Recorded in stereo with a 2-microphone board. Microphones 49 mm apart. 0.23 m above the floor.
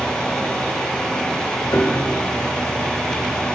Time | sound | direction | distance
1.7 | a piano | 55° left (ahead or behind) | 5 m